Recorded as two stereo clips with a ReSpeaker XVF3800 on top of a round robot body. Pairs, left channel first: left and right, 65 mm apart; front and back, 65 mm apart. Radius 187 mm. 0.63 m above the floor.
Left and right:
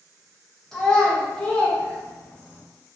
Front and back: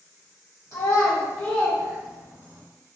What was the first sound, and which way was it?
A child speaking, 5° left.